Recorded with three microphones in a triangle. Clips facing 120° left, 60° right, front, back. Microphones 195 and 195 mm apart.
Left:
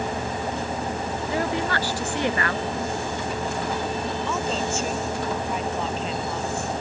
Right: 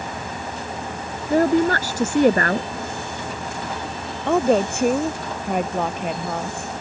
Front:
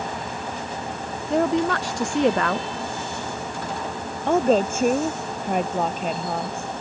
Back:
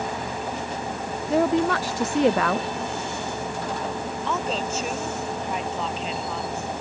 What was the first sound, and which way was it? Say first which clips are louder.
A woman speaking: right 10 dB, even; 90° right.